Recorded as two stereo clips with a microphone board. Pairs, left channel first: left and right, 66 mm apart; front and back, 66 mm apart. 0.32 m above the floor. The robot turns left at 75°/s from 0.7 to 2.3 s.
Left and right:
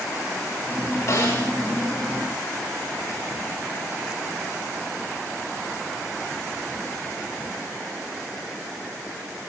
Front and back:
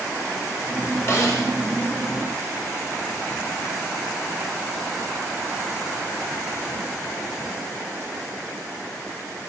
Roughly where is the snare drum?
Ahead left.